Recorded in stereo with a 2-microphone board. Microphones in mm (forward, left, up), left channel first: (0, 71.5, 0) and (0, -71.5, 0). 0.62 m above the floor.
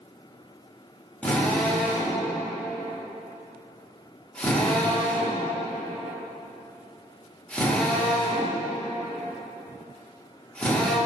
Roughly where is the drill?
Centre.